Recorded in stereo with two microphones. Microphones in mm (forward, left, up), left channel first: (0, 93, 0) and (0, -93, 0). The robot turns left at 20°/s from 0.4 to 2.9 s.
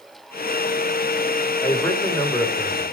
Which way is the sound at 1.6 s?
20° left (ahead or behind).